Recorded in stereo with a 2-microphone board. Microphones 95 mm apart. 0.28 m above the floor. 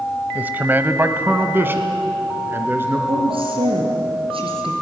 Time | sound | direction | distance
0.3 | a man speaking | 20° right (ahead or behind) | 1.0 m
3.1 | a woman speaking | 70° right (ahead or behind) | 4.5 m